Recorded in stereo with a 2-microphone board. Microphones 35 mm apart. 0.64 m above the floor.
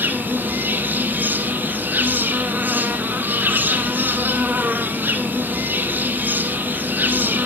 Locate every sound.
0.0 s an insect: 65° right (ahead or behind), 1.0 m